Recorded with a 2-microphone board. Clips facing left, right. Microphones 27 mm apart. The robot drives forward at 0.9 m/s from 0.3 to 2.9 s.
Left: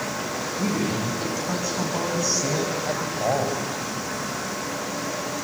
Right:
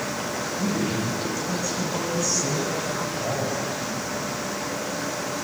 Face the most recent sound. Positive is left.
turn(degrees=30)  # may be behind; listen again after turning